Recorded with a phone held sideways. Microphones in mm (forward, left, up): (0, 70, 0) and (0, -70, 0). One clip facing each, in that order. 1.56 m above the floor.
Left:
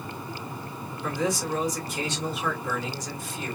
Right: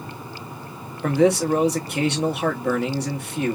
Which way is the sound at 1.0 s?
65° right (ahead or behind).